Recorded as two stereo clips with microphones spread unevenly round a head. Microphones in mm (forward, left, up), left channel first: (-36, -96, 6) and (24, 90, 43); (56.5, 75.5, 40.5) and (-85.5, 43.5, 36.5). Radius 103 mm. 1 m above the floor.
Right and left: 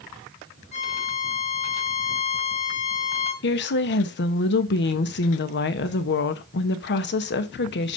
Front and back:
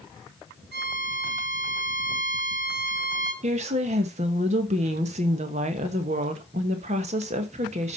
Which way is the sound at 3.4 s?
120° right.